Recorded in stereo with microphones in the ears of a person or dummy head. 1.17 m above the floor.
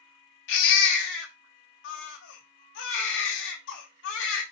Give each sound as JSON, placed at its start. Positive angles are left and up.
{"t": 0.5, "sound": "a baby crying", "side_deg": 75, "distance_m": 1.7}